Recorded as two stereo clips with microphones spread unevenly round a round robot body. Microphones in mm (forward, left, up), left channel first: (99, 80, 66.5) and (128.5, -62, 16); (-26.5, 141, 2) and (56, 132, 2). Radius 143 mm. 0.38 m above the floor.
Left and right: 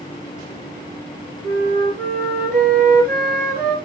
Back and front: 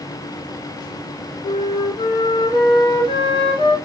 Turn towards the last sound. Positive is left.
turn(degrees=-160)